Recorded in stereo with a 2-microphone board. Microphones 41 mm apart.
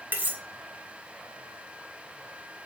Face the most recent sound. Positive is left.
turn(degrees=-35)  # may be behind; listen again after turning